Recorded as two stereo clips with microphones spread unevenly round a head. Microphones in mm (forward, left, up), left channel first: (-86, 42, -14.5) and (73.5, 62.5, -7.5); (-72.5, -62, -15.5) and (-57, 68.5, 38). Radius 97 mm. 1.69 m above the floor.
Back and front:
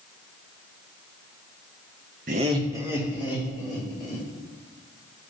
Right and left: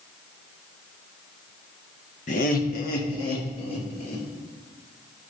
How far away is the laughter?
About 0.6 m.